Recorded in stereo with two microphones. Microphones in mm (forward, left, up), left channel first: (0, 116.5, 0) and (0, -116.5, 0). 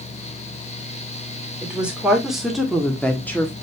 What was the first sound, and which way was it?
A woman speaking, 5° right (ahead or behind).